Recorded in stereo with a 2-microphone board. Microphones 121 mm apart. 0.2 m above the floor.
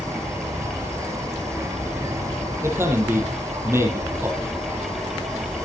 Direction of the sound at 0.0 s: 25° right (ahead or behind).